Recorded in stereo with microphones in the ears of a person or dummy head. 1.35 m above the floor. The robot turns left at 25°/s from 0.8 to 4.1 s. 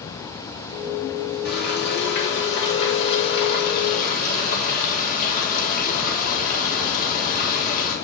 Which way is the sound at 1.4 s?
115° left.